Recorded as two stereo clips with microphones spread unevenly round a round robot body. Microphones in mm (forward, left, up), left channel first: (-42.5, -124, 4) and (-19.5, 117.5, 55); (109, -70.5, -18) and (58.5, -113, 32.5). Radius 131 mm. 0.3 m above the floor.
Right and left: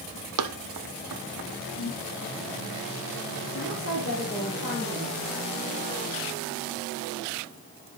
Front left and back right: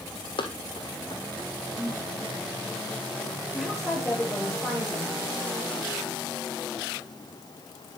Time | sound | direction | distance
0.4 | running footsteps | 75° left | 1.1 m
1.7 | a whoosh | 40° right | 6.5 m
3.5 | a woman speaking | 45° right | 6 m